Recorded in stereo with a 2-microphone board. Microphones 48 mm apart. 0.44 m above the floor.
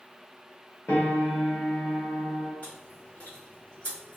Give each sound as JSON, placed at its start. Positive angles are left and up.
{"t": 0.9, "sound": "a piano", "side_deg": 50, "distance_m": 1.1}
{"t": 2.6, "sound": "chewing", "side_deg": 45, "distance_m": 1.7}